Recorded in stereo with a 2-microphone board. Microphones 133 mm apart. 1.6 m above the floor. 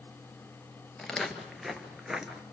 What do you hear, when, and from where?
1.0 s footsteps: 5° left (ahead or behind), 1.7 m; by 2.4 s 5° right (ahead or behind), 1.5 m